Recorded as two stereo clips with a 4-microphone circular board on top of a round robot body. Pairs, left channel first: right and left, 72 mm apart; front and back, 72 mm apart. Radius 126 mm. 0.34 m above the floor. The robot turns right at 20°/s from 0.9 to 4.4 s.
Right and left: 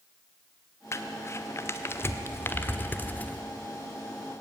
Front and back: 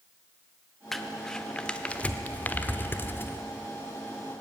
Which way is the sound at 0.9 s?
85° right.